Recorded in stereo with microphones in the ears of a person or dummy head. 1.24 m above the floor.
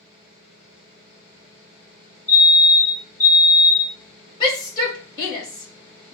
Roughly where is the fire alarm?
Centre.